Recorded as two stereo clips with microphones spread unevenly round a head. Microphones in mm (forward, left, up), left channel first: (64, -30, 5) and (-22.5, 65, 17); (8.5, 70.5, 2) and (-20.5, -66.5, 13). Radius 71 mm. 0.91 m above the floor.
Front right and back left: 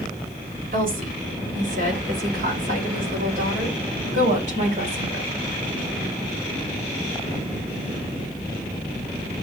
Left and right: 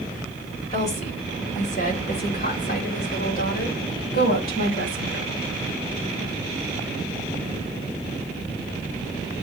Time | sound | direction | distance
0.7 | a woman speaking | 120° left | 3.5 m